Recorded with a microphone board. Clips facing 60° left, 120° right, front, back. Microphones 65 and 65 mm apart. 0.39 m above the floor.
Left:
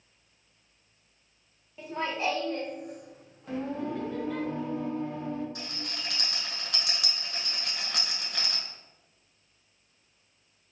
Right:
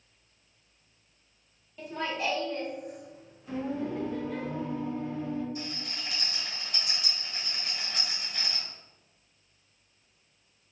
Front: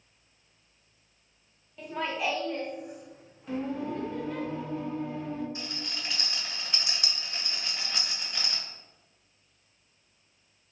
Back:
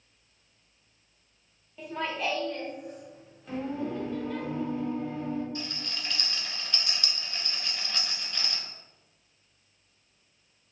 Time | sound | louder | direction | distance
1.8 | laughter | left 1 dB, even | 100° left | 0.9 m
3.5 | singing | even, even | 90° left | 1.9 m
5.5 | a rattle | right 1 dB, back 1 dB | 70° left | 1.1 m